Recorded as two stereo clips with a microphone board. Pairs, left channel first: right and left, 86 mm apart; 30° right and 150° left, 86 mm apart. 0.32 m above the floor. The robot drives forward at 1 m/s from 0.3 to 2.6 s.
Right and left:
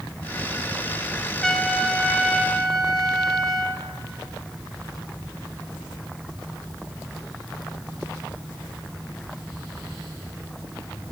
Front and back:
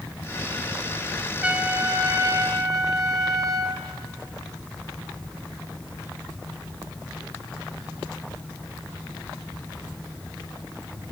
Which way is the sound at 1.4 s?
160° right.